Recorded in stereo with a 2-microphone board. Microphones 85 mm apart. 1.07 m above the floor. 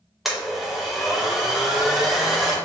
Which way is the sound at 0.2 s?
5° right (ahead or behind).